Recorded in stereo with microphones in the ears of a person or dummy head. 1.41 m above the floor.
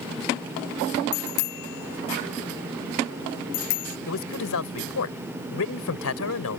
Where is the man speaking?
90° left.